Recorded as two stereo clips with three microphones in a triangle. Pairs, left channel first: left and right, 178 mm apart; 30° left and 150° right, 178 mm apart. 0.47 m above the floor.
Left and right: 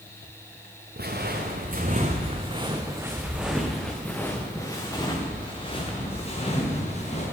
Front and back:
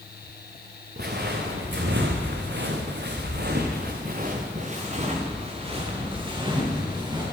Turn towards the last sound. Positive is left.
turn(degrees=140)